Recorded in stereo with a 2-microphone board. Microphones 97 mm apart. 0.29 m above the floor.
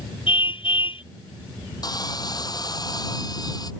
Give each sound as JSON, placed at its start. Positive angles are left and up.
{"t": 0.3, "sound": "a car horn", "side_deg": 60}
{"t": 1.8, "sound": "sawing", "side_deg": 45}